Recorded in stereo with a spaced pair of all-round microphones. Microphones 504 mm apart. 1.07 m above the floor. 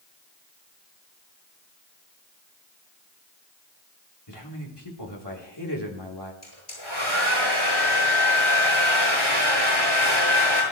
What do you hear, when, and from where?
4.3 s a man speaking: 55° left (ahead or behind), 3.5 m
6.4 s a hair dryer: 80° left, 7.5 m